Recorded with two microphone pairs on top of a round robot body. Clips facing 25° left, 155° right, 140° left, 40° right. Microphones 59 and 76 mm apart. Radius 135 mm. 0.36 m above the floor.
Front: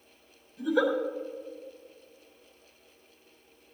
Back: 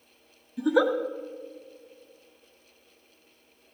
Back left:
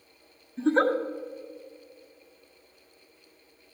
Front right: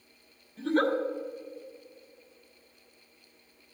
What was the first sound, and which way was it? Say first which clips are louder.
A giggle: back 3 dB, back left 3 dB; 160° right.